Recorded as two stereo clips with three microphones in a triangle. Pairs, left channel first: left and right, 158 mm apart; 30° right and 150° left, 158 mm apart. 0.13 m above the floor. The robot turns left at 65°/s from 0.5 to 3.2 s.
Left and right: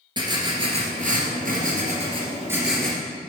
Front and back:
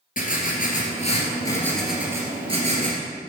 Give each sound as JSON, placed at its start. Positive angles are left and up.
{"t": 0.2, "sound": "writing", "azimuth_deg": -30, "distance_m": 1.7}